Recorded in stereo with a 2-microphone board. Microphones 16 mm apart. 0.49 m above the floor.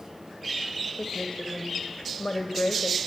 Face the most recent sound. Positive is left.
turn(degrees=60)  # may be behind; listen again after turning